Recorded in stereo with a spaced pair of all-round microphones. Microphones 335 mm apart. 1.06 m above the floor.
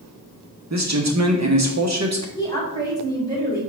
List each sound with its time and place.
0.7 s a man speaking: 50° right (ahead or behind), 1.2 m
2.4 s a woman speaking: 10° left (ahead or behind), 3.5 m